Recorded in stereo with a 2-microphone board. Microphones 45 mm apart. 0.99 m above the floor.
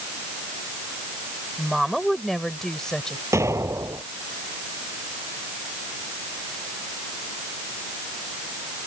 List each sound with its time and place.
1.6 s a woman speaking: 5° right (ahead or behind); by 3.2 s 15° left (ahead or behind)
3.3 s an explosion: 90° right